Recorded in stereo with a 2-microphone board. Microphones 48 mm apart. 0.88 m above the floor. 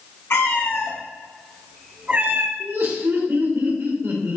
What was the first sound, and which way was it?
A cat meowing, 60° left (ahead or behind).